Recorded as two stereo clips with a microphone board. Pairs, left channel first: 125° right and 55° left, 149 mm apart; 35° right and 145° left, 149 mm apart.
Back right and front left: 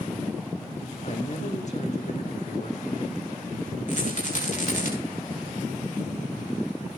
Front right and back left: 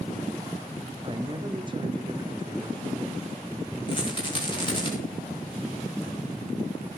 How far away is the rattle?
About 6.5 m.